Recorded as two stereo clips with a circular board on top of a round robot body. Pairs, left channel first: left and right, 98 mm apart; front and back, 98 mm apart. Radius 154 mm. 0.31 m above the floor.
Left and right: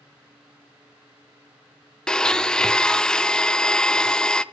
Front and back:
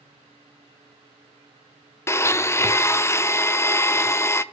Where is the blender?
15° left, 0.5 m.